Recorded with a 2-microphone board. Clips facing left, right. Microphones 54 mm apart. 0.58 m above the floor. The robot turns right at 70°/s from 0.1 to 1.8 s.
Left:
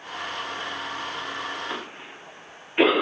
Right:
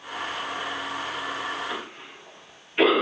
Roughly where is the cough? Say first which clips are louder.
Even; left.